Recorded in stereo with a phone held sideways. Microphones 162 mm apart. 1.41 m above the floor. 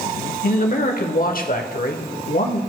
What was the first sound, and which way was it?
A man speaking, 65° left (ahead or behind).